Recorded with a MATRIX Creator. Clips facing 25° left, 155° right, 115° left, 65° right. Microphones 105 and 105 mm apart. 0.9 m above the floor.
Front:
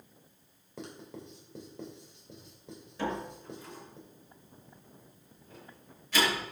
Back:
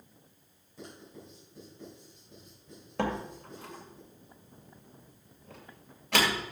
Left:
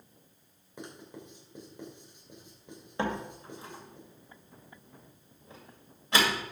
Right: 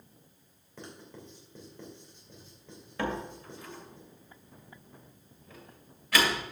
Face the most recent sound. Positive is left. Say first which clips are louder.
# back 2 dB, left 1 dB
turn(degrees=175)